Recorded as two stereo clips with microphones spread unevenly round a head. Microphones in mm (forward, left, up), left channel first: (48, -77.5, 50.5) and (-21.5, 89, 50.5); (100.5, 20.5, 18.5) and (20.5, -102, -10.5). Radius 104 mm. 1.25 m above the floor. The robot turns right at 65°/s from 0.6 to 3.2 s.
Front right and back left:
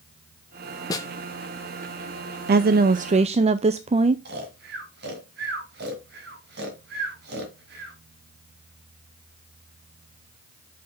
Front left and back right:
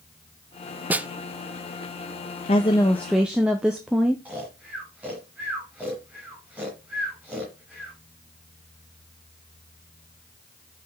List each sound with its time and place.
0.9 s a snare drum: 35° right, 0.6 m; by 1.1 s 20° right, 0.6 m
2.5 s a woman speaking: 115° left, 0.6 m; by 4.2 s 160° left, 0.6 m
4.2 s snoring: 150° left, 2.5 m